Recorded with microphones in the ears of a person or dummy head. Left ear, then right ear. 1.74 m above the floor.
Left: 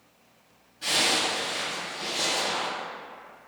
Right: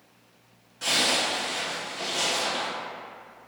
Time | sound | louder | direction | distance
0.8 | a zipper | even | 60° right (ahead or behind) | 0.6 m